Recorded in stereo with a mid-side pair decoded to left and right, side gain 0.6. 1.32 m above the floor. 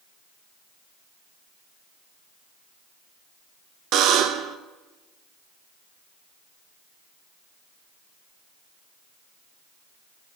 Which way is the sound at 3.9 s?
65° right.